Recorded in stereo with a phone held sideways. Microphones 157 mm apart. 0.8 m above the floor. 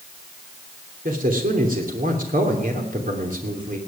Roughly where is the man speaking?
Right.